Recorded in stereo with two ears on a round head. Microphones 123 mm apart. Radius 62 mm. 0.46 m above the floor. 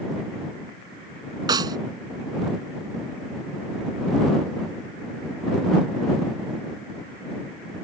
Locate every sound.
1.5 s a snare drum: 30° right (ahead or behind)